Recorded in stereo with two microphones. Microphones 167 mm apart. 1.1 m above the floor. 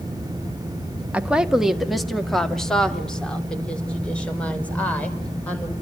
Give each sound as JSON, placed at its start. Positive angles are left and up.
{"t": 1.1, "sound": "a woman speaking", "side_deg": -10, "distance_m": 1.2}